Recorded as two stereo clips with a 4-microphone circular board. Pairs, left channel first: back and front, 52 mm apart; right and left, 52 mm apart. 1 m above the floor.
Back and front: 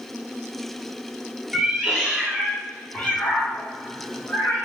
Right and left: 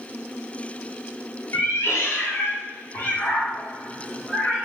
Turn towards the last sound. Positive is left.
turn(degrees=-170)